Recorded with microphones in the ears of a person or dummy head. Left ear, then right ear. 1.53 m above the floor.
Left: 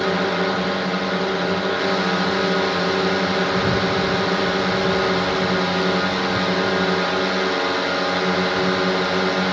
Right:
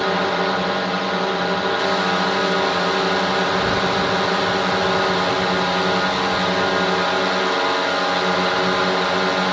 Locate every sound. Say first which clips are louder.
0.0 s a drone: right 1 dB; 30° right (ahead or behind)